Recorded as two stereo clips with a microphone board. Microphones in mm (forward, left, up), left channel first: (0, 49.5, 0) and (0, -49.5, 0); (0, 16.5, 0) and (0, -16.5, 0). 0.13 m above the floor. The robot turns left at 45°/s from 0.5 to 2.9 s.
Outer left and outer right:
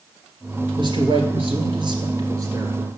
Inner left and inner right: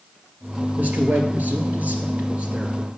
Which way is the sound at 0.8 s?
60° right.